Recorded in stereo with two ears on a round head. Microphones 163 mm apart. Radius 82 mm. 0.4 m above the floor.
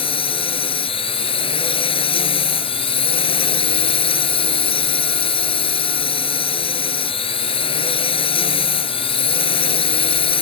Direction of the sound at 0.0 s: 30° left (ahead or behind).